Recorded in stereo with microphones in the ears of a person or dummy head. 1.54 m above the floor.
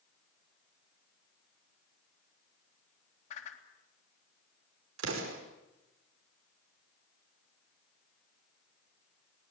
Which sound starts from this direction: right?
An explosion, at 5.0 s.